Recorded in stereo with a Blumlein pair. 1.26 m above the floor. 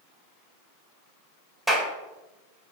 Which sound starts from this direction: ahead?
A clap, at 1.7 s.